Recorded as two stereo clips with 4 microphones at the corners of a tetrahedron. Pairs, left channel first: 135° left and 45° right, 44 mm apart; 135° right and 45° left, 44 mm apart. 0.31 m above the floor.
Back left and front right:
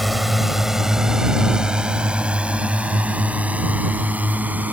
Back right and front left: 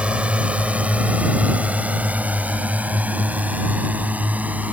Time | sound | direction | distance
0.0 | a drone | 40° left | ?